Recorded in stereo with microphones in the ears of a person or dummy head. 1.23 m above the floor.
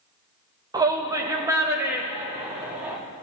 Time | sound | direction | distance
0.7 | a shout | 15° right (ahead or behind) | 1.4 m